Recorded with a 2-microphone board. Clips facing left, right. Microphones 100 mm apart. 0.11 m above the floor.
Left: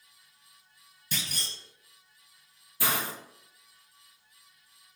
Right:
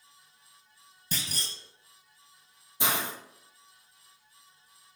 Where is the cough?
No cough in this recording.